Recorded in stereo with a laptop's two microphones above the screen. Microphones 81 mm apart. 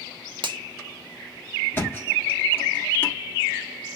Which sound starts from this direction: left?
A thud, at 1.7 s.